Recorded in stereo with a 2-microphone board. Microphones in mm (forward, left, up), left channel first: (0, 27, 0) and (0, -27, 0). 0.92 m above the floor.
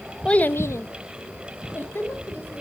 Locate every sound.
0.2 s a child speaking: 15° left (ahead or behind), 0.7 m; by 2.6 s 40° left (ahead or behind), 3 m